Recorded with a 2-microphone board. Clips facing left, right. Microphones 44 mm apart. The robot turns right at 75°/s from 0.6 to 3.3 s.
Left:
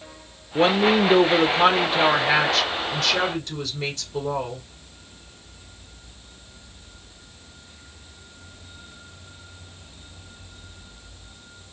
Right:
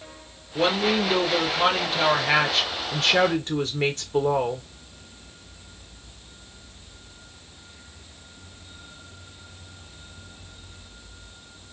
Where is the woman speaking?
60° left, 1.1 m; by 4.6 s 95° right, 1.1 m.